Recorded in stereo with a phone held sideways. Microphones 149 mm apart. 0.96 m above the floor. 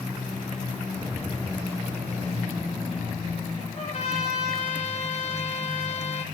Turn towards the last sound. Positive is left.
turn(degrees=50)  # may be behind; listen again after turning